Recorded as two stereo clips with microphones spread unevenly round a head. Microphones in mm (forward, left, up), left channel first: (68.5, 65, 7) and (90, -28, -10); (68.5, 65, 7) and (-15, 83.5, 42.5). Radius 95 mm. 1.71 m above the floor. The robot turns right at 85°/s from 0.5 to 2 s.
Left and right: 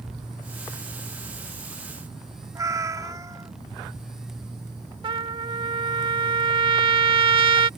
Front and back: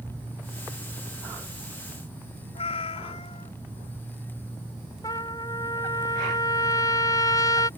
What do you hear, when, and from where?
2.5 s a cat meowing: 25° right
5.0 s a trumpet: 95° right